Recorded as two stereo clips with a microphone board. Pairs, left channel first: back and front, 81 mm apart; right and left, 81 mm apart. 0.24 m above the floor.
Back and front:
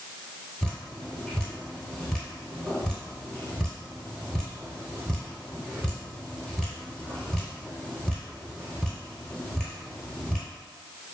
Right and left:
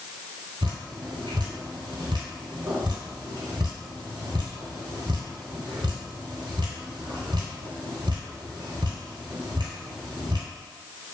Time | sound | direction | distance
0.6 | dripping | 100° left | 1.0 m